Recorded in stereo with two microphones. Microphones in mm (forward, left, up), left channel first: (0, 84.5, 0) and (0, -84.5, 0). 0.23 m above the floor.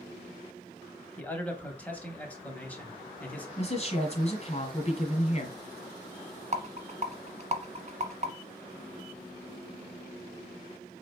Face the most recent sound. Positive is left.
turn(degrees=-45)  # may be behind; listen again after turning